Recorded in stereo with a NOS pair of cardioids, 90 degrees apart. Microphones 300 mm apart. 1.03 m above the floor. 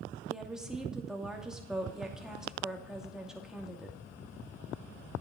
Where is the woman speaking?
5° right, 2.5 m.